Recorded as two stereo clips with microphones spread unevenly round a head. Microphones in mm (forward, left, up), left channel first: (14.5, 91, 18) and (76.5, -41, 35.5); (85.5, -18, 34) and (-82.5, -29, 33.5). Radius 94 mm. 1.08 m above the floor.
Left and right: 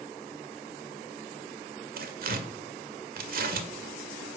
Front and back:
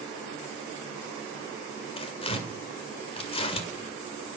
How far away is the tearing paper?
About 1.9 m.